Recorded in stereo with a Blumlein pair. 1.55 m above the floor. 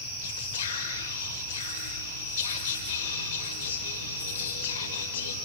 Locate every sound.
0.2 s whispering: 60° left, 5.5 m